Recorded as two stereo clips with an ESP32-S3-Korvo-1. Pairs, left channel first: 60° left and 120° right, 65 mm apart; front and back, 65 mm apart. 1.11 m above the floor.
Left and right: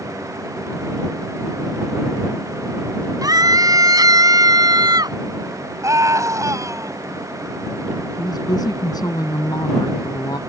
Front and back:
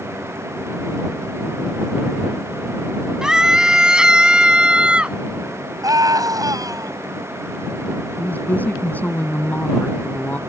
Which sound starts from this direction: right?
A scream, at 3.2 s.